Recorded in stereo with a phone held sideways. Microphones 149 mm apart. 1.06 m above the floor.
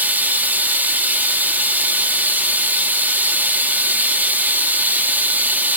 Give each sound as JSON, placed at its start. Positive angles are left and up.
{"t": 0.0, "sound": "running water", "side_deg": -10, "distance_m": 0.9}